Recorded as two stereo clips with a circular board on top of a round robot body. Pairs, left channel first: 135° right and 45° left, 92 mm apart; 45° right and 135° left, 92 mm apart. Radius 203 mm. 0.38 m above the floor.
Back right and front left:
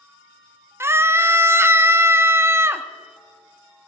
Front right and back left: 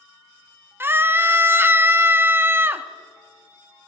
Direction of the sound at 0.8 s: 85° left.